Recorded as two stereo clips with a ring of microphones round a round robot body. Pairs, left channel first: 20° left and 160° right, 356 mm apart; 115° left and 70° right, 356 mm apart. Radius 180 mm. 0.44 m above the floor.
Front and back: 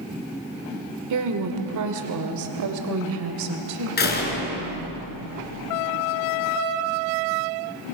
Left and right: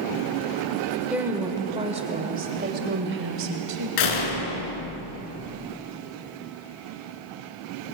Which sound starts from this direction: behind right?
A woman speaking, at 1.1 s.